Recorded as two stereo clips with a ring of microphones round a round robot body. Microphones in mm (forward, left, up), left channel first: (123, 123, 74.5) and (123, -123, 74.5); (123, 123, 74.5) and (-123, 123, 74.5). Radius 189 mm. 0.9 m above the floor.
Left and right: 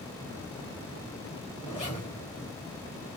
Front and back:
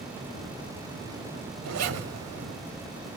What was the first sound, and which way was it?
A zipper, 165° left.